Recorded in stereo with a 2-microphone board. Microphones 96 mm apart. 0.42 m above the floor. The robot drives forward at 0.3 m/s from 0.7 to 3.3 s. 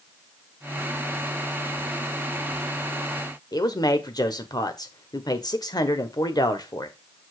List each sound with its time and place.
3.5 s a man speaking: 45° left (ahead or behind), 1.1 m